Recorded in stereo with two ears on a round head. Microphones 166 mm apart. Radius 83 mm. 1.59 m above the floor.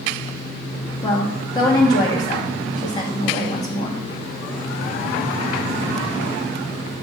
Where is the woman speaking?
20° left (ahead or behind), 1.8 m.